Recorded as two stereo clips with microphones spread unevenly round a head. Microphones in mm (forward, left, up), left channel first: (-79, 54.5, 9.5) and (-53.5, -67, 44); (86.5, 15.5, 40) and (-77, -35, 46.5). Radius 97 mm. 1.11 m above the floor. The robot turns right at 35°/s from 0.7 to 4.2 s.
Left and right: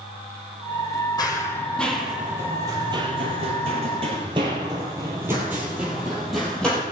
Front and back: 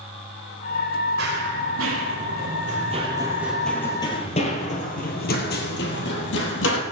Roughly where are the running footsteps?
Behind.